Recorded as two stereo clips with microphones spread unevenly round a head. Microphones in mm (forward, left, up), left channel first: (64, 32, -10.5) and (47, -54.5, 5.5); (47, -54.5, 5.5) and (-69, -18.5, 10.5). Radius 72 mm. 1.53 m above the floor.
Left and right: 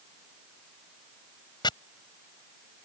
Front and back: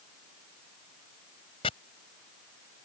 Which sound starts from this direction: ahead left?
Chopping, at 1.6 s.